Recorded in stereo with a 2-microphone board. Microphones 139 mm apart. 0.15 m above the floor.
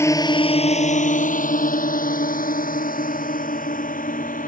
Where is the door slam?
No door slam in this recording.